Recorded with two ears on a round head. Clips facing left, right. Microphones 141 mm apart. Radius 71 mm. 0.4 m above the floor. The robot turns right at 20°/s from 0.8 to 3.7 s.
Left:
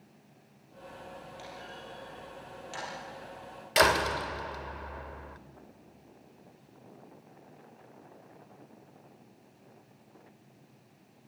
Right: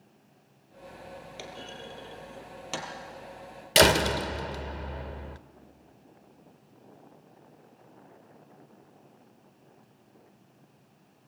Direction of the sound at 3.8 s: 30° right (ahead or behind).